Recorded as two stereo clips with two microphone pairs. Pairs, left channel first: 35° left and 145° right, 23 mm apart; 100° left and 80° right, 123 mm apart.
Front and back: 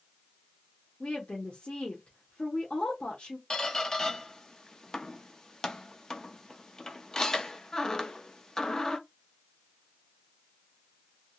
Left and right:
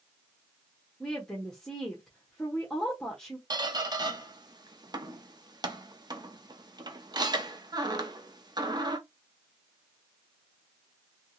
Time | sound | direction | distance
1.0 | a woman speaking | 20° left | 1.0 m
3.5 | a squeak | 30° right | 0.6 m